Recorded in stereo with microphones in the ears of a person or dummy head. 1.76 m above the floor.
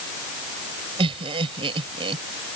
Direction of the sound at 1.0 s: 35° right (ahead or behind).